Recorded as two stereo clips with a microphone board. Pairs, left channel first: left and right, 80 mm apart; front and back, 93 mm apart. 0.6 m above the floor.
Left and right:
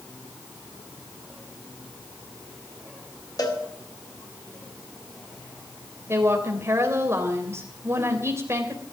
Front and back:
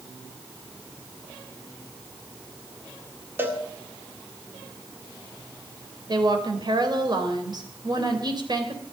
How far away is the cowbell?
About 2 m.